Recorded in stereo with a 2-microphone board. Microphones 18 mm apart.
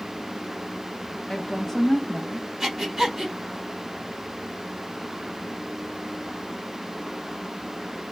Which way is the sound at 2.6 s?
20° right (ahead or behind).